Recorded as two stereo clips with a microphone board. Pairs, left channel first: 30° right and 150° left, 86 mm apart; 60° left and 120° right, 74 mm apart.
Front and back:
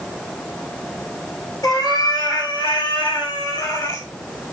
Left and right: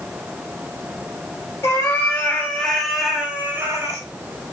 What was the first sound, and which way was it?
A cat meowing, 10° left.